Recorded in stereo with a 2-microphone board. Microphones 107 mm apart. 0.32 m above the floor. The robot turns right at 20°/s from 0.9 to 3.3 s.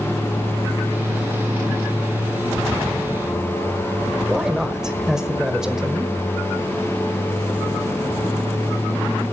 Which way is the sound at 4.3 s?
5° right (ahead or behind).